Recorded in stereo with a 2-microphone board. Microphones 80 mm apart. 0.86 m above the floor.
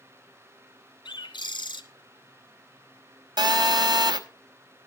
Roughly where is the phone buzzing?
Right.